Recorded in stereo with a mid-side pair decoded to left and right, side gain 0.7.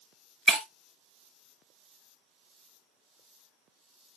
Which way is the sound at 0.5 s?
15° left.